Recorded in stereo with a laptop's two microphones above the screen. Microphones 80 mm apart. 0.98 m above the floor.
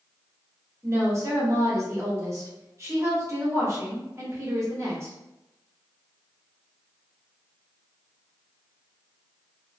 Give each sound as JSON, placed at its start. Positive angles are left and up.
{"t": 0.8, "sound": "a woman speaking", "side_deg": -40, "distance_m": 1.2}